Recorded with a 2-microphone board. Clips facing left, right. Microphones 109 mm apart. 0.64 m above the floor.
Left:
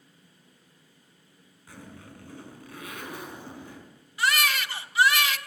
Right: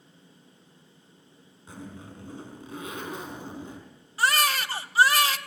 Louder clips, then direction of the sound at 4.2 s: Right 2 dB; 35° right (ahead or behind).